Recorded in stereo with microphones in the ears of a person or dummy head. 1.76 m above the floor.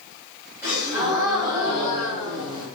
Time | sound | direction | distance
0.6 | a gasp | 15° right (ahead or behind) | 1.6 m